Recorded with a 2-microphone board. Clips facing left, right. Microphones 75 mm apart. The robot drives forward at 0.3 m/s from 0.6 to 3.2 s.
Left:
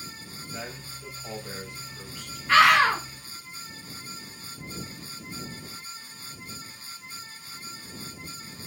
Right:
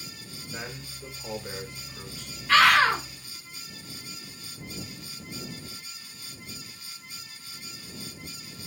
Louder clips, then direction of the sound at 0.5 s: Even; 25° right (ahead or behind).